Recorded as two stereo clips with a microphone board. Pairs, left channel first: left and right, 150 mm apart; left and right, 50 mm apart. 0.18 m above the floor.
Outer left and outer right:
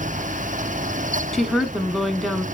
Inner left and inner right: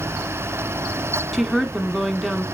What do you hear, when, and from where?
1.3 s a woman speaking: centre (ahead or behind), 1.3 m